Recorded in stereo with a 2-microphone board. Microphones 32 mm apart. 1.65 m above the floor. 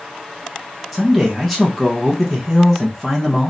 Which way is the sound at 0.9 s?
Centre (ahead or behind).